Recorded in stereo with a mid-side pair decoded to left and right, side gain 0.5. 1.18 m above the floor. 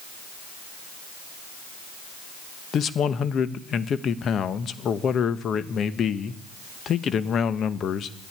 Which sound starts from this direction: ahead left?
A man speaking, at 2.7 s.